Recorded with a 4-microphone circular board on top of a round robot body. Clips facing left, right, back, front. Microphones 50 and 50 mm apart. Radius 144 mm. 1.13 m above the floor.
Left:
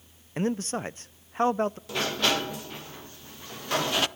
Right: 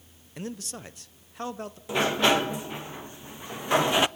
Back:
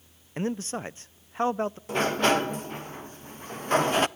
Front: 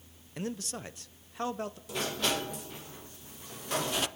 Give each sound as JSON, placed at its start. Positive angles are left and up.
{"t": 0.4, "sound": "a man speaking", "azimuth_deg": 130, "distance_m": 0.6}
{"t": 1.9, "sound": "a sliding door", "azimuth_deg": -155, "distance_m": 0.8}